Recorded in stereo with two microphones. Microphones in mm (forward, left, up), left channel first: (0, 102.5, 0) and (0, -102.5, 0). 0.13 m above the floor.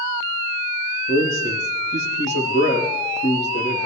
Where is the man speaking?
65° left (ahead or behind), 5.5 m.